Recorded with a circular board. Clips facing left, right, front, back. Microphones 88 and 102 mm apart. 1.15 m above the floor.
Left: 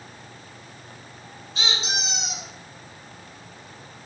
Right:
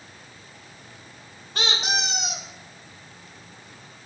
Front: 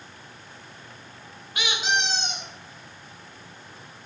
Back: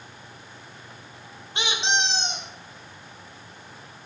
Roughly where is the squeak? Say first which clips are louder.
Right 3 dB, back 1 dB; behind right.